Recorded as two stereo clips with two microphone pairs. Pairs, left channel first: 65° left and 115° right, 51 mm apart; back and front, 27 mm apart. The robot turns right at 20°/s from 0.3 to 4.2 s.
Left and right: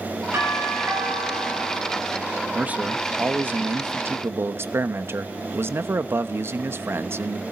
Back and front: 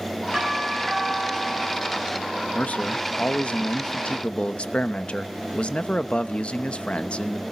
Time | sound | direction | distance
0.3 | a doorbell | 95° right | 6 m
2.5 | a man speaking | straight behind | 0.8 m